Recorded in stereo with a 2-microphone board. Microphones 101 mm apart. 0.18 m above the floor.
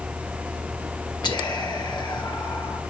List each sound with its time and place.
1.2 s whispering: 45° left (ahead or behind), 3 m